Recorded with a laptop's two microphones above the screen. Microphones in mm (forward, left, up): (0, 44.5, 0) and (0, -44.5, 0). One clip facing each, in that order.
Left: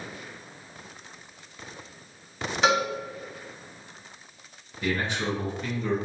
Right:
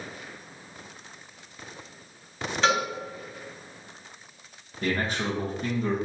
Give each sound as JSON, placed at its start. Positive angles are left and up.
{"t": 2.6, "sound": "a cowbell", "side_deg": 15, "distance_m": 1.4}
{"t": 4.8, "sound": "a man speaking", "side_deg": -40, "distance_m": 1.1}